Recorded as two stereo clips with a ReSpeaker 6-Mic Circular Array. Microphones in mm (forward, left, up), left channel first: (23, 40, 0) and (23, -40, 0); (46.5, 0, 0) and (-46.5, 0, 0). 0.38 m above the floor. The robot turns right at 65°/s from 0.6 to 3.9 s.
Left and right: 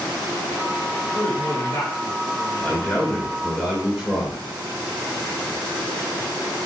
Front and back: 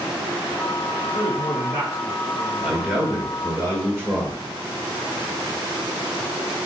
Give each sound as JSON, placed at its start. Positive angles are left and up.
{"t": 1.1, "sound": "a man speaking", "azimuth_deg": 80, "distance_m": 1.3}
{"t": 2.6, "sound": "a man speaking", "azimuth_deg": 110, "distance_m": 1.1}